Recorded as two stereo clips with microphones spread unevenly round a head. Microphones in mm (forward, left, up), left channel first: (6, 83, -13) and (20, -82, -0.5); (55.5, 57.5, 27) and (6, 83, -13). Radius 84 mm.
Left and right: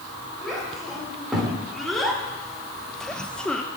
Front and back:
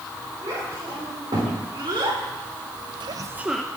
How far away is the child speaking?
About 4.5 m.